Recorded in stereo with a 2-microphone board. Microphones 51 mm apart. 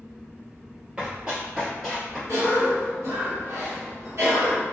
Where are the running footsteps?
20° right (ahead or behind), 1.7 m; by 2.2 s centre (ahead or behind), 1.6 m.